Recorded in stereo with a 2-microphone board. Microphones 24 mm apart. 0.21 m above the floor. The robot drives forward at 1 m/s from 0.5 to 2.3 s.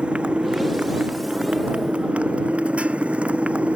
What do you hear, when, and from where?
0.0 s a motorcycle: 55° right (ahead or behind); by 3.8 s 75° right (ahead or behind)